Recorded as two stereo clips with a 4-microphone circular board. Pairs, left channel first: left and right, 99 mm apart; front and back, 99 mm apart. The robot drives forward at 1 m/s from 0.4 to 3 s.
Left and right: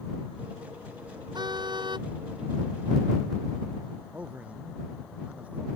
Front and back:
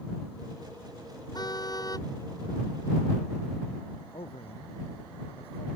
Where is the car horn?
45° right; by 2.1 s 50° right.